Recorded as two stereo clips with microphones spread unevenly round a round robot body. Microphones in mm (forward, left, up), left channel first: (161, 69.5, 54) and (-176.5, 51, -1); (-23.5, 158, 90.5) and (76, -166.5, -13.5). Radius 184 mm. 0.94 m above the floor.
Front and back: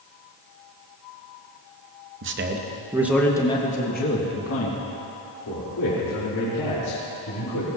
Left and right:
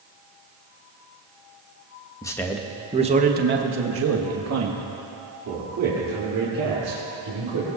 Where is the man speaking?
160° right, 1.2 m; by 7.7 s 40° right, 4.5 m.